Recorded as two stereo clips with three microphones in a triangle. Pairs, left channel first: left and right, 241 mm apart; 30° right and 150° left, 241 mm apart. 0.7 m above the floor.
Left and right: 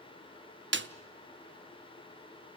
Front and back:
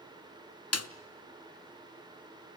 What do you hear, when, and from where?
0.7 s a snare drum: 45° right, 0.6 m